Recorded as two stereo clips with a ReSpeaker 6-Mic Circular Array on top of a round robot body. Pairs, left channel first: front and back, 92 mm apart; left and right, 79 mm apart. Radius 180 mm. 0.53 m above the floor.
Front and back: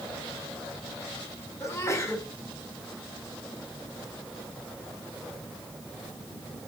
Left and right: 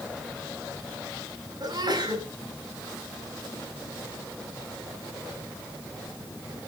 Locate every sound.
1.6 s a sneeze: 60° right, 6.5 m